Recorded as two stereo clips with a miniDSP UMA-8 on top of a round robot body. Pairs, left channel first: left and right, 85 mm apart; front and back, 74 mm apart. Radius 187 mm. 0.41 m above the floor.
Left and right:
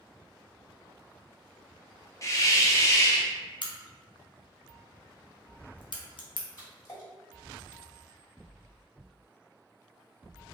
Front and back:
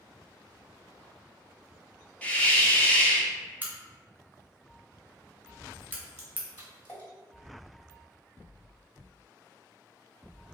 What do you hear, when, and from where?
2.2 s a hiss: 60° left, 0.8 m
3.6 s a crack: 115° left, 0.6 m
6.6 s a splash: 50° left, 1.9 m